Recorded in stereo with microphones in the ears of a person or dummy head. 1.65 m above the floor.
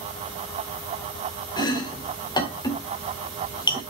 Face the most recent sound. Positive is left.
turn(degrees=20)  # may be behind; listen again after turning